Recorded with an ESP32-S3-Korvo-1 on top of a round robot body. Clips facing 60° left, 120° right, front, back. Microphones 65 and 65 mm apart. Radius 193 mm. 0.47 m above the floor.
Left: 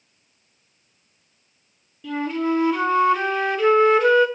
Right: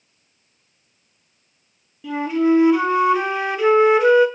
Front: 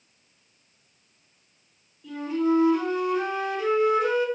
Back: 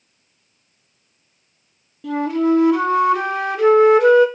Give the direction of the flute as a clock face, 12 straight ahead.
7 o'clock.